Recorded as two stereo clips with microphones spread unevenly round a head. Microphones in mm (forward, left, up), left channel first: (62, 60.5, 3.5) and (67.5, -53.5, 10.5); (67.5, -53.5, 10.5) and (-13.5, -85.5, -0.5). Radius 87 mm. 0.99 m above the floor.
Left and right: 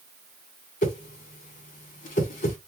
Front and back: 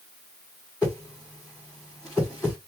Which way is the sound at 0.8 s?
110° left.